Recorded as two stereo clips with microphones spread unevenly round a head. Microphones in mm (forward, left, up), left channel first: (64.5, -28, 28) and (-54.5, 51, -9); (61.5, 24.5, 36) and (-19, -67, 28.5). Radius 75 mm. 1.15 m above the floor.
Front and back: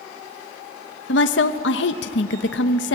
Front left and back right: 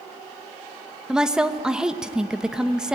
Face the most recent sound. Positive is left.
turn(degrees=-45)